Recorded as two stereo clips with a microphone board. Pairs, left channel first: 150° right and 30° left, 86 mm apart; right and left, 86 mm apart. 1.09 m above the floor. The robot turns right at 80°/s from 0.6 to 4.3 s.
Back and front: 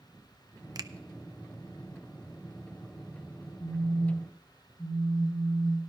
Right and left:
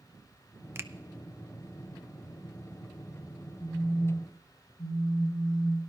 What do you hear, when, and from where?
0.8 s a finger snap: 40° left, 0.5 m; by 0.9 s 50° left, 0.5 m
3.6 s a phone buzzing: 125° right, 7.5 m; by 5.8 s 70° right, 7.5 m